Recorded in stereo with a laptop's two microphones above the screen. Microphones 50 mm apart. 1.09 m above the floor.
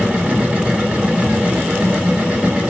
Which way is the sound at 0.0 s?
25° right (ahead or behind).